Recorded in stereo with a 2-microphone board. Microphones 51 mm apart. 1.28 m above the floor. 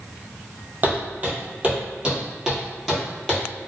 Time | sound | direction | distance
0.8 | footsteps | 40° right (ahead or behind) | 1.6 m